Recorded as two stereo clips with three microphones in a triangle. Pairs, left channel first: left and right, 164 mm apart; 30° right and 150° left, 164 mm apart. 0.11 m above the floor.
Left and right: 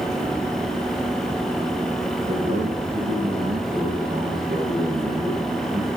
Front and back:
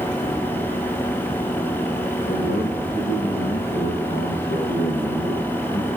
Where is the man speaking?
45° right, 7 m.